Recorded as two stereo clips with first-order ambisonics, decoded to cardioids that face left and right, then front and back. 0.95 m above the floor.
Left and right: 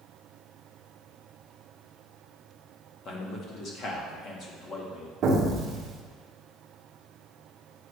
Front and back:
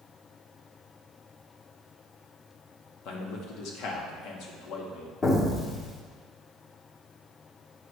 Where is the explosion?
60° right, 1.0 m.